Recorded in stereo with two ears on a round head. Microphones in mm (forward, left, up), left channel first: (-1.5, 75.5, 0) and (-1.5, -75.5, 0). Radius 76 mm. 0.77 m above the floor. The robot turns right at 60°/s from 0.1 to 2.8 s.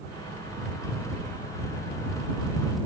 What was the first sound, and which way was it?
Only background noise.